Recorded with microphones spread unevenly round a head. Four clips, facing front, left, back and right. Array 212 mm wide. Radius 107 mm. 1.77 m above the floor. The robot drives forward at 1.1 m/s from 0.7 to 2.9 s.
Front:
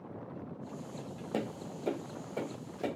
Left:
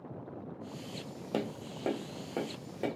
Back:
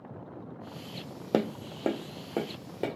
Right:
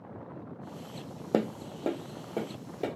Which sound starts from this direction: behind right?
Tapping, at 1.3 s.